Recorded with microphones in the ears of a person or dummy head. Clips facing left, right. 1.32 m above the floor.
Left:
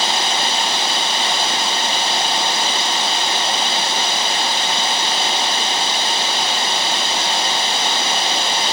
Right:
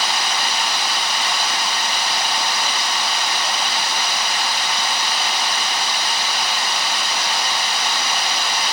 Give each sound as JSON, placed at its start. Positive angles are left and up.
{"t": 0.0, "sound": "running water", "side_deg": 25, "distance_m": 0.7}